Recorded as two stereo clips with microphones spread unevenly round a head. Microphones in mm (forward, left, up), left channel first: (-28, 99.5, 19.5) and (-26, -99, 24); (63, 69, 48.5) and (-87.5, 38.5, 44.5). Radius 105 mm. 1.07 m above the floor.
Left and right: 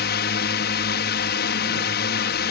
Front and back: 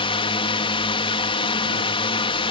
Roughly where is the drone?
Ahead left.